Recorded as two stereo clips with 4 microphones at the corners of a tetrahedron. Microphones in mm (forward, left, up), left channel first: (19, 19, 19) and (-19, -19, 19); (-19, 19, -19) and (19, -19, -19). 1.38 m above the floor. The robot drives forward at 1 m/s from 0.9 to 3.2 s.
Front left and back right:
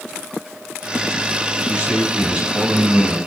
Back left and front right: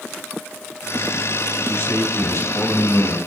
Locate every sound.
1.7 s a man speaking: 160° left, 7.5 m; by 3.2 s 165° left, 9 m